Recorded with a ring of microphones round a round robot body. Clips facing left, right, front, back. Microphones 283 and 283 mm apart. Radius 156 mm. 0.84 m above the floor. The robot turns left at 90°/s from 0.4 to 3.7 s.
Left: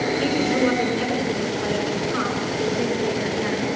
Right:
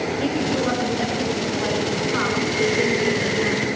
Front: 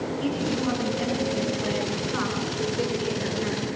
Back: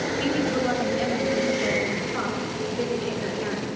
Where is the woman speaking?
150° left, 9.5 m; by 3.7 s 145° right, 9.5 m.